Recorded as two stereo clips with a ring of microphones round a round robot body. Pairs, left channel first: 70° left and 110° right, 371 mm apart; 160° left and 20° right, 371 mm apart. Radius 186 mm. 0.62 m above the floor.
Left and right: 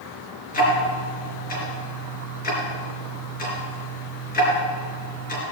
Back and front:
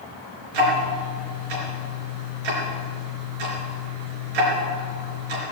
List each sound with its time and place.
0.5 s ticking: straight ahead, 4 m